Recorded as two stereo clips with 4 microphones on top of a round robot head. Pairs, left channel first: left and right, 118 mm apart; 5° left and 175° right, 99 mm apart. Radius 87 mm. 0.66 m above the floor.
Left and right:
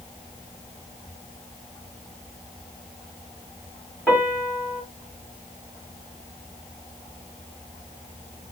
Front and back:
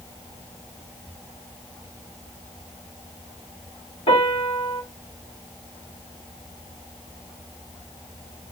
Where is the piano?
15° left, 2 m.